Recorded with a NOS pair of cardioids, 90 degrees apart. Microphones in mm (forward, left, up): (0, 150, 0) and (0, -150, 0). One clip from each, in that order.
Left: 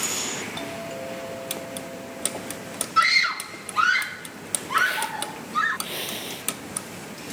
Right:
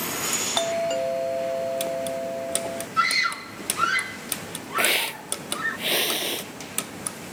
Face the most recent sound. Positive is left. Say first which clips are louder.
# right 2 dB
turn(degrees=-45)